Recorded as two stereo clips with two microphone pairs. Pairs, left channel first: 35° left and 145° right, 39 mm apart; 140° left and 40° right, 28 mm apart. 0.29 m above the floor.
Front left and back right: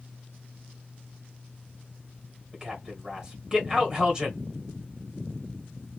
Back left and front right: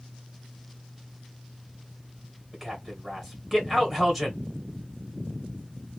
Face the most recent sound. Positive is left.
turn(degrees=-120)